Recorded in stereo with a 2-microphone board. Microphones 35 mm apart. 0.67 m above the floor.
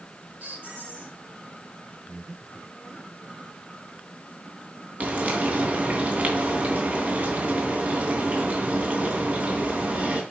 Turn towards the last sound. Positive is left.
turn(degrees=-45)  # may be behind; listen again after turning